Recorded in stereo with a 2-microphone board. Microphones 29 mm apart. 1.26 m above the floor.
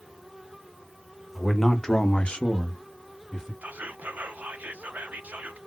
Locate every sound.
1.4 s a man speaking: 5° left (ahead or behind), 1.2 m; by 3.5 s 10° left (ahead or behind), 1.8 m
3.6 s whispering: 65° right (ahead or behind), 0.6 m